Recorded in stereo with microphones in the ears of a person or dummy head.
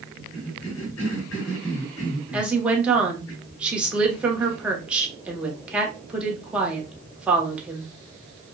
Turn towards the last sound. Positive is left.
turn(degrees=-5)  # may be behind; listen again after turning